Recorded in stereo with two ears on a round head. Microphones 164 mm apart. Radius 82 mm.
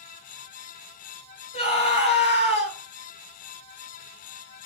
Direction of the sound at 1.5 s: 35° left (ahead or behind).